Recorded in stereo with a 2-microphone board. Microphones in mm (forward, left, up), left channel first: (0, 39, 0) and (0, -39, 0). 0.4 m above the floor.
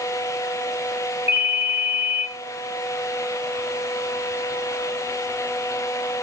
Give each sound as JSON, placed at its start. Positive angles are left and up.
{"t": 1.3, "sound": "a ringtone", "side_deg": -35, "distance_m": 2.5}